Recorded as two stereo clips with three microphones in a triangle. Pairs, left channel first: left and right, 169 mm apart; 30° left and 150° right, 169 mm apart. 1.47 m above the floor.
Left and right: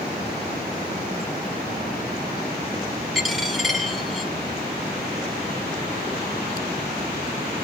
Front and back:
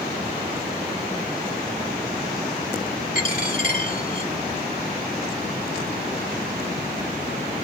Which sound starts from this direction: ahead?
A dropped coin, at 3.1 s.